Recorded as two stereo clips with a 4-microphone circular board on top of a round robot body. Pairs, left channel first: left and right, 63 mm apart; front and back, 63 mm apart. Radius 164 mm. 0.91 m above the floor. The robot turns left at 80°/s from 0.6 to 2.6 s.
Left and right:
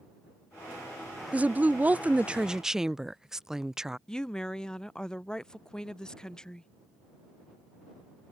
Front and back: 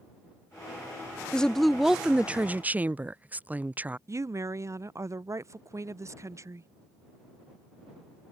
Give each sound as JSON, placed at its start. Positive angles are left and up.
{"t": 1.3, "sound": "a woman speaking", "azimuth_deg": -60}
{"t": 4.1, "sound": "a woman speaking", "azimuth_deg": 165}